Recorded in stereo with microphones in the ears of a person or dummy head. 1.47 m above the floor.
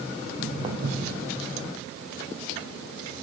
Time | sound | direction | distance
0.2 | footsteps | 25° right (ahead or behind) | 3.5 m